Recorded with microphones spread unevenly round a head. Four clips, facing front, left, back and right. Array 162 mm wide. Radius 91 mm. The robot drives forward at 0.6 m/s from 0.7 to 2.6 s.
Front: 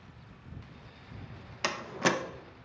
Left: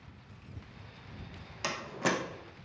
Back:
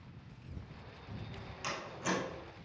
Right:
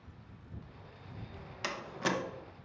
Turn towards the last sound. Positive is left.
turn(degrees=35)